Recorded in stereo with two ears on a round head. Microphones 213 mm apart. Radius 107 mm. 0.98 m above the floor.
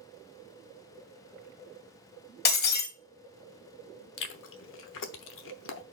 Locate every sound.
2.5 s breaking glass: 40° left (ahead or behind), 1.3 m
4.2 s chewing: 55° left (ahead or behind), 0.9 m